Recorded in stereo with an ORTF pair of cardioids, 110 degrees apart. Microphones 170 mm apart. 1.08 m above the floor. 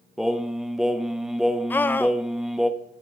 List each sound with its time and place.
0.2 s singing: straight ahead, 0.9 m
1.7 s a scream: 10° left, 0.7 m